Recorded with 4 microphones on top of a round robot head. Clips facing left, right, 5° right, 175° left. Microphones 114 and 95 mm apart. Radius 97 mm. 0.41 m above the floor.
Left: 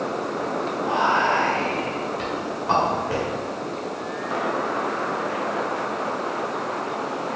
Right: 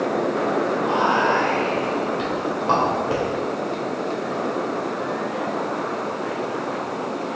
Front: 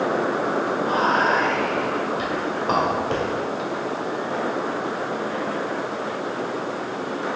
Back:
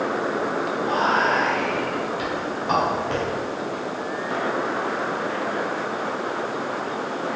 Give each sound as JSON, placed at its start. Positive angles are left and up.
{"t": 0.8, "sound": "whispering", "azimuth_deg": -40, "distance_m": 1.4}